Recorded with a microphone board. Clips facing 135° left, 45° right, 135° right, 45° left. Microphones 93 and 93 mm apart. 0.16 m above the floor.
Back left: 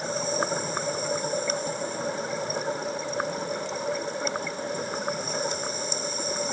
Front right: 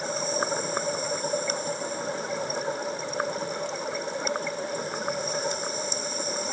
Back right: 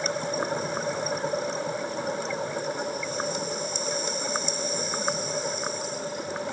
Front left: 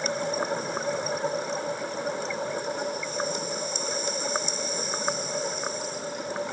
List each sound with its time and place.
Only background noise.